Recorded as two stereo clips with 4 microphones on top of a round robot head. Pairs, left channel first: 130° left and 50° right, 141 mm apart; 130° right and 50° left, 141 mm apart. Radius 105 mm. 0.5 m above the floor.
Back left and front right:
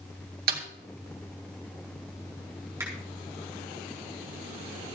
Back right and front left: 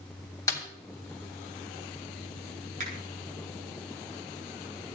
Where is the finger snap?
20° left, 5.5 m.